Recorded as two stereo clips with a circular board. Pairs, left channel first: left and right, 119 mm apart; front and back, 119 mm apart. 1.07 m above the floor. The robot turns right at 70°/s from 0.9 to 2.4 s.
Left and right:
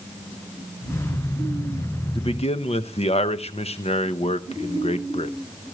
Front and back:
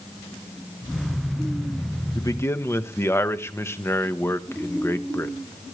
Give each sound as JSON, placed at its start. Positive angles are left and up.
{"t": 2.1, "sound": "a man speaking", "azimuth_deg": 50, "distance_m": 0.9}